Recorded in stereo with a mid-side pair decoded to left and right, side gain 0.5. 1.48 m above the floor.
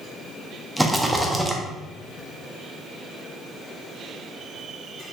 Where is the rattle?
5° right, 0.5 m.